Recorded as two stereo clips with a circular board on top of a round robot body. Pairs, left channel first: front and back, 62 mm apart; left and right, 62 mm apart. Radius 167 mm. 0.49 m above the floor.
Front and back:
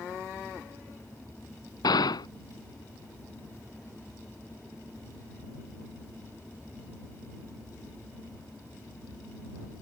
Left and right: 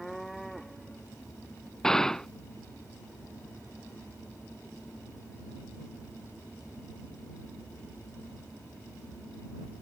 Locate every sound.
1.8 s a gunshot: 10° left